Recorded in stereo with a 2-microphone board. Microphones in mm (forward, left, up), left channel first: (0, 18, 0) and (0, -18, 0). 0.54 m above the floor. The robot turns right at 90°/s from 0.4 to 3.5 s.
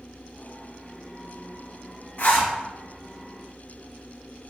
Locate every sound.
2.2 s a zipper: 55° left (ahead or behind), 1.1 m; by 2.5 s 25° left (ahead or behind), 1.1 m